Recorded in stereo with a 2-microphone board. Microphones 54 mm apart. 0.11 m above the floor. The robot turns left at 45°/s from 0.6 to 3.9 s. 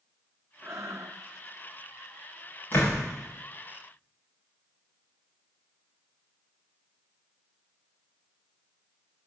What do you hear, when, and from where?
0.6 s breathing: 45° right (ahead or behind), 1.3 m; by 1.2 s 75° right (ahead or behind), 1.3 m
2.7 s a door slam: 40° left (ahead or behind), 7.5 m; by 3.0 s 55° left (ahead or behind), 7.5 m